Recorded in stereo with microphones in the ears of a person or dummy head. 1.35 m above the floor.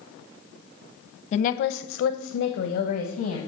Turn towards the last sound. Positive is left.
turn(degrees=45)  # may be behind; listen again after turning